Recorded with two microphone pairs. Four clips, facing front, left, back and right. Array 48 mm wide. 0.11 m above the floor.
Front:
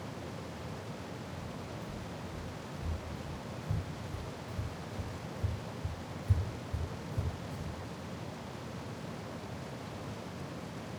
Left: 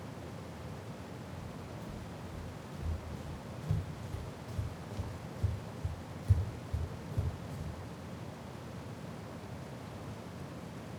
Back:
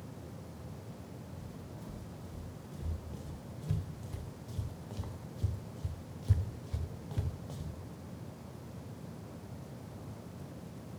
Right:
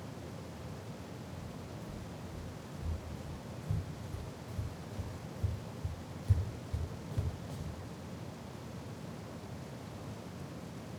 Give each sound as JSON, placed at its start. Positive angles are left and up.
{"t": 1.4, "sound": "footsteps", "azimuth_deg": 110, "distance_m": 4.0}